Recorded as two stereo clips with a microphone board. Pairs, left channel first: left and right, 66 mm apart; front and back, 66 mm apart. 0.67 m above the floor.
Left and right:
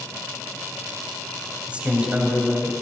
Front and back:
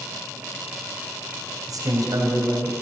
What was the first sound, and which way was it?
A man speaking, 160° right.